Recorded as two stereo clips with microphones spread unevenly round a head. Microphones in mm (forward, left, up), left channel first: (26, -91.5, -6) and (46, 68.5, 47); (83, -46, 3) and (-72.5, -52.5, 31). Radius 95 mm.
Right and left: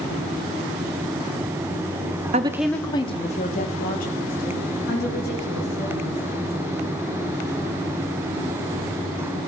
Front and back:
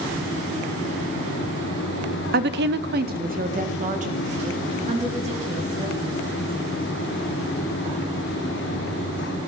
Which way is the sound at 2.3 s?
145° left.